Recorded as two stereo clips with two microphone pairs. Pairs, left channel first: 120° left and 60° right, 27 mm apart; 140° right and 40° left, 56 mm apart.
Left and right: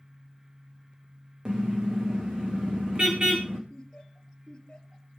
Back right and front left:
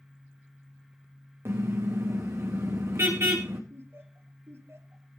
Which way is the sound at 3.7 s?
75° left.